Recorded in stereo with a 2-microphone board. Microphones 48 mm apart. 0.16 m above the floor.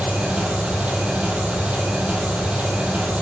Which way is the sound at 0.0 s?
25° right (ahead or behind).